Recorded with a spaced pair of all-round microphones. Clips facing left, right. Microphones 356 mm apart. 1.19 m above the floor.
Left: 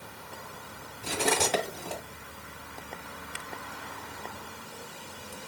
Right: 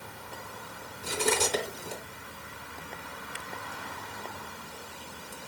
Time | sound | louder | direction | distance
1.0 | cutlery clinking | even | 75° left (ahead or behind) | 1.9 m